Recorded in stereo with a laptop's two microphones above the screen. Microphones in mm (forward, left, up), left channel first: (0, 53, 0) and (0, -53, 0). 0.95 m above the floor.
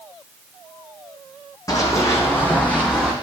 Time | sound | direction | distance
1.7 | running footsteps | 35° left (ahead or behind) | 1.9 m